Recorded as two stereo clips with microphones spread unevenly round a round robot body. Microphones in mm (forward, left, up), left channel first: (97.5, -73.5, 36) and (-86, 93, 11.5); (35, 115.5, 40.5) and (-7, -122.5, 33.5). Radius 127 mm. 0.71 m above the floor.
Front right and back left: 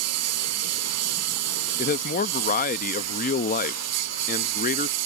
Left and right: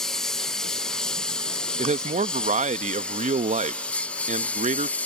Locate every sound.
0.0 s a lawn mower: 170° left; by 5.1 s 165° left
1.8 s a man speaking: 75° right